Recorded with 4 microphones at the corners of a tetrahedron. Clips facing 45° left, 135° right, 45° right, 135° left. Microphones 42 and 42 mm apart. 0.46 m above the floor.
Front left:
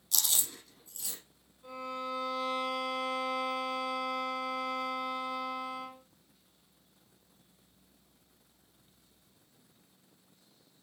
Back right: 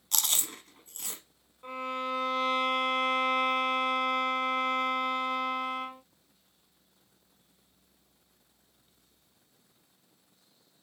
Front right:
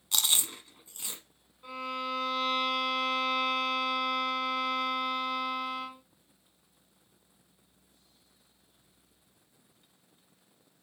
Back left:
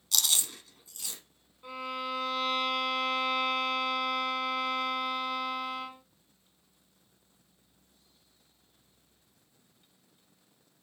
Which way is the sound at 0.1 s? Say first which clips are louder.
Back right 3 dB, front right 1 dB; 105° right.